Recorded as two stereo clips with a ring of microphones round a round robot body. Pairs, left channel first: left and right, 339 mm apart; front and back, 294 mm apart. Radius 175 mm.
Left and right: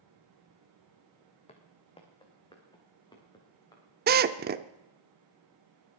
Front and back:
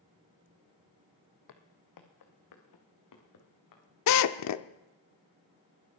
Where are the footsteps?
20° left, 1.7 m; by 3.8 s 10° left, 4.5 m.